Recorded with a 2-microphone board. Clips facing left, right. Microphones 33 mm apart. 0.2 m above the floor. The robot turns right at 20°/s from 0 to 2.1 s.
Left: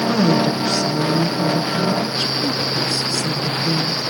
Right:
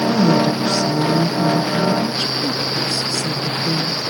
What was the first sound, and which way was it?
A woman speaking, 175° left.